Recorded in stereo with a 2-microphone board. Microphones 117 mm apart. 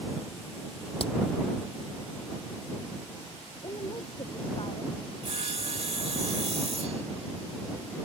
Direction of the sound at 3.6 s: 45° left (ahead or behind).